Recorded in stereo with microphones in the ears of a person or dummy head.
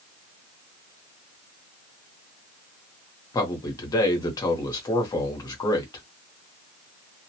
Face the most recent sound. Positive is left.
turn(degrees=20)  # may be behind; listen again after turning